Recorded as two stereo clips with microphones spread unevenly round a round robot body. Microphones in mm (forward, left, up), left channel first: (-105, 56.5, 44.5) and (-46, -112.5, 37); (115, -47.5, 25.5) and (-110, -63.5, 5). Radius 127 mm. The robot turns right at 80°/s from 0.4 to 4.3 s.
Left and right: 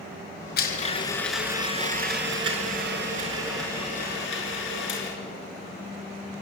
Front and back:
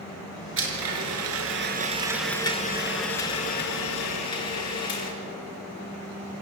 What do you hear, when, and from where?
0.6 s a blender: 140° left, 4.5 m; by 5.1 s 80° left, 4.5 m